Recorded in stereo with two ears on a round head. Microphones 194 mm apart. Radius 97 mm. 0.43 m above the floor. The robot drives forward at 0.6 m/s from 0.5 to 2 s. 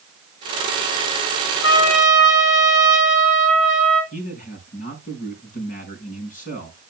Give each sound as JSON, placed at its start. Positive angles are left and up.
{"t": 1.6, "sound": "a trumpet", "side_deg": 65, "distance_m": 4.0}
{"t": 4.1, "sound": "a man speaking", "side_deg": 40, "distance_m": 4.5}